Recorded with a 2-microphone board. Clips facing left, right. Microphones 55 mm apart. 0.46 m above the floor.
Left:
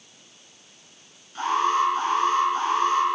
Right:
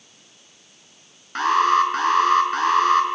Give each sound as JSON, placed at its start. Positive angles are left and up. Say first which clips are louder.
{"t": 1.4, "sound": "an alarm", "louder": "right 5 dB", "side_deg": -75, "distance_m": 5.0}